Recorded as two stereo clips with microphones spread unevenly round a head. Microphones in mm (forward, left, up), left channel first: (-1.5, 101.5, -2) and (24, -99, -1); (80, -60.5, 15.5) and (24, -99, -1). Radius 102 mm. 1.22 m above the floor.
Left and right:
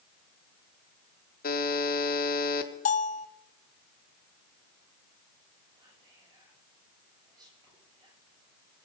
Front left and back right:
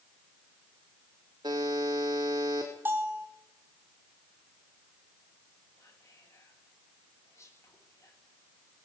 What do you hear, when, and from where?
1.4 s a buzzer: 145° left, 1.6 m
2.9 s a bell: 150° left, 0.9 m
5.8 s whispering: 10° right, 9.5 m